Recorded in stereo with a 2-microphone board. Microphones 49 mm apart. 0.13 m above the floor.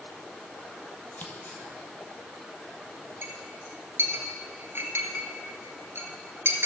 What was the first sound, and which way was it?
Scissors, 35° left (ahead or behind).